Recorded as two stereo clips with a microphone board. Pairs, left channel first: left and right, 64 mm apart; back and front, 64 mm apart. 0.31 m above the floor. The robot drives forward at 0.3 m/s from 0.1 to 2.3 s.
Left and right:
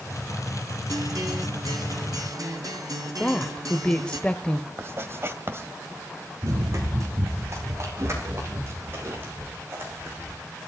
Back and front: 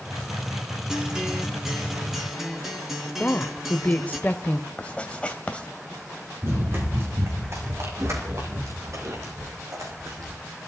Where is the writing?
115° right, 1.9 m.